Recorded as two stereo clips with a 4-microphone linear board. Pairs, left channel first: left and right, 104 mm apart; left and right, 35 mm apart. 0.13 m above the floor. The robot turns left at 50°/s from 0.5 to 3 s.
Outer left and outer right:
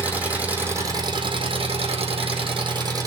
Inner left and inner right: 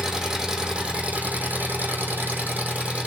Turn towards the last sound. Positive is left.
turn(degrees=-140)